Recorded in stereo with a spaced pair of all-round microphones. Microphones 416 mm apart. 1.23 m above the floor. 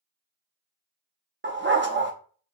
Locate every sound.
1.4 s a dog barking: 25° right (ahead or behind), 0.7 m